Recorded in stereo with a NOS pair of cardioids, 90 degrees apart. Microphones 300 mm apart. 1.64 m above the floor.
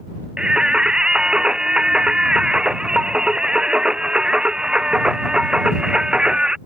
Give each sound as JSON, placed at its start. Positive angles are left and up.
{"t": 0.4, "sound": "singing", "azimuth_deg": 0}